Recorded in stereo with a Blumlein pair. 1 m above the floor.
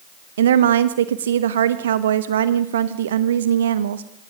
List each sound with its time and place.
0.4 s a woman speaking: 60° right, 1.0 m